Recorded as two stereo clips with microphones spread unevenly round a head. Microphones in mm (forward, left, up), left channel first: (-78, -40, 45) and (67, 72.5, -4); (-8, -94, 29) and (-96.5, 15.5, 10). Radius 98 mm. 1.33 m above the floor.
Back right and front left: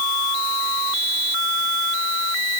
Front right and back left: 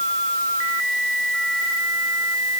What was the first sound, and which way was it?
Only background noise.